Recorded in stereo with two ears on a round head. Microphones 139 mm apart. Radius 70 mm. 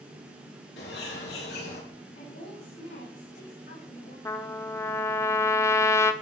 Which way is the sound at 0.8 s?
80° left.